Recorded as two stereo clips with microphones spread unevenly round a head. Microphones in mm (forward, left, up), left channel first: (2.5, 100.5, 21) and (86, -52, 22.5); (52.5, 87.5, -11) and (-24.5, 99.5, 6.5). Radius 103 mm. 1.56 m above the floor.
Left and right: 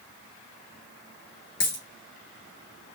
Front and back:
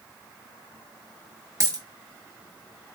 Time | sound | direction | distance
1.6 | a dropped coin | 145° left | 1.6 m